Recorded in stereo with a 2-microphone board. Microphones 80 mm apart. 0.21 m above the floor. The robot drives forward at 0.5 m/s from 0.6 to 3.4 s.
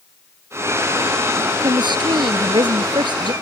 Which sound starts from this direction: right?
A woman speaking, at 1.6 s.